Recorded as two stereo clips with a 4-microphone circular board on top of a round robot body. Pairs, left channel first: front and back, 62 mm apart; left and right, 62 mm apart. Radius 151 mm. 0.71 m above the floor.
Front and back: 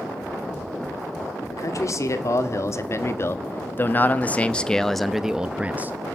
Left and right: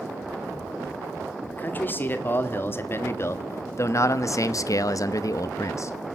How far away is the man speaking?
About 2 m.